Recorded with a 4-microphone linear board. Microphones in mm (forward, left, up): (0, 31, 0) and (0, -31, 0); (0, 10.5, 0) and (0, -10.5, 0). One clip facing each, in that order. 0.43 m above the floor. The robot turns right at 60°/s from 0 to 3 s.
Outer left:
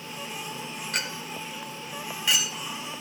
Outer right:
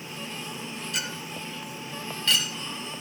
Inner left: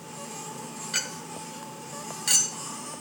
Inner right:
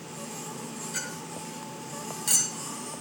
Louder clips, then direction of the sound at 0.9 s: Outer left 3 dB, inner left 7 dB; 60° left (ahead or behind).